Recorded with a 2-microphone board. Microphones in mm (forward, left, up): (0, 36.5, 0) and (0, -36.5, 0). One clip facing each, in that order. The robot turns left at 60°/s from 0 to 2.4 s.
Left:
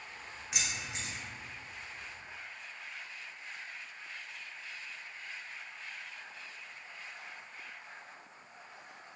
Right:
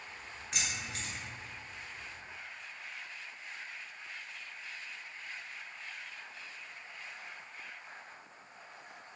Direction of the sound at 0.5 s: 5° left (ahead or behind).